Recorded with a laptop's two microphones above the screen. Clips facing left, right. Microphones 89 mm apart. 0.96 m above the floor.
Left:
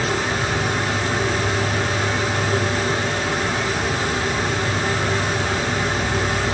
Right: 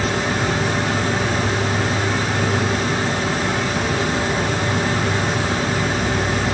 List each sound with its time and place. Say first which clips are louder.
0.0 s an insect: right 1 dB; 55° right (ahead or behind)